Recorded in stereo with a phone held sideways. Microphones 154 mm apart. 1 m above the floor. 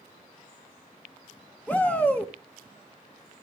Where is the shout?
10° left (ahead or behind), 1.0 m.